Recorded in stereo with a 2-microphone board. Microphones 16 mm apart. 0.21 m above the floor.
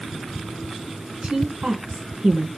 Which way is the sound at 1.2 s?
55° right (ahead or behind).